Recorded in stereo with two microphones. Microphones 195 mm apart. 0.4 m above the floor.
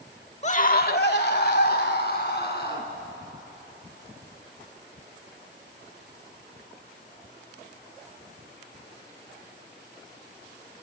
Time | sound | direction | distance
0.4 | a scream | 35° left (ahead or behind) | 0.9 m